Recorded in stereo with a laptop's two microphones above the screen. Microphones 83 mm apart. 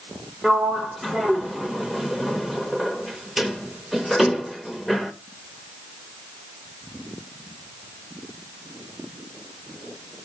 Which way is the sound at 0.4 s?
Centre (ahead or behind).